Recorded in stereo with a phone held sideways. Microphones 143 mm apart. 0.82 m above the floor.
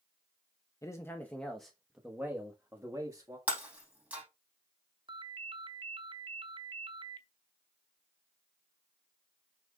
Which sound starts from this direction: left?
A man speaking, at 0.8 s.